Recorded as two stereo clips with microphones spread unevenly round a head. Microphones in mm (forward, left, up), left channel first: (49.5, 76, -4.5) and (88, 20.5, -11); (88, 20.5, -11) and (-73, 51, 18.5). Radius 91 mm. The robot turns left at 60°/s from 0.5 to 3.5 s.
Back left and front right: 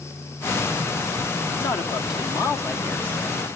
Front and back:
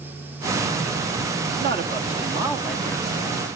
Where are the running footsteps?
No running footsteps in this recording.